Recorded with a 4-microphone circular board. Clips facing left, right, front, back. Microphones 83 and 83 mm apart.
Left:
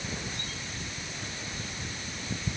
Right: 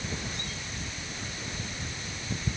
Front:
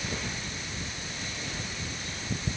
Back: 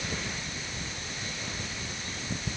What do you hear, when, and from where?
Only background noise.